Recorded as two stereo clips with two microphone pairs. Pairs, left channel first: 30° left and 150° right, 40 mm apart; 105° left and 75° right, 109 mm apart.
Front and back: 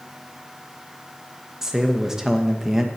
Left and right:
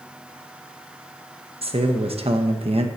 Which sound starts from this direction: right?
A man speaking, at 1.6 s.